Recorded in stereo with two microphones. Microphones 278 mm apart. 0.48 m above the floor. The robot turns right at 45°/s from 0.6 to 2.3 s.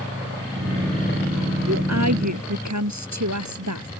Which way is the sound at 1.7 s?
60° right (ahead or behind).